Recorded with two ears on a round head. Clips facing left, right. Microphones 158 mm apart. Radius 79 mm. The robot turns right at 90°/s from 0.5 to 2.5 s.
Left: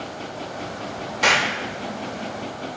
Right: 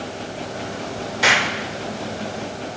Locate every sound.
1.2 s an explosion: 5° right (ahead or behind), 0.6 m; by 2.8 s 35° right (ahead or behind), 0.6 m